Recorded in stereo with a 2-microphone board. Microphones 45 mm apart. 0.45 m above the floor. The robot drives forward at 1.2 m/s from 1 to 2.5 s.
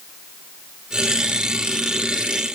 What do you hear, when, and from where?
Only background noise.